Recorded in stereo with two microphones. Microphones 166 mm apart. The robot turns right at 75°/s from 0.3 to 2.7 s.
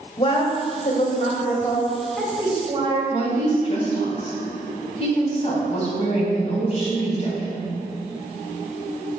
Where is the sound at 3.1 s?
40° left (ahead or behind), 3 m.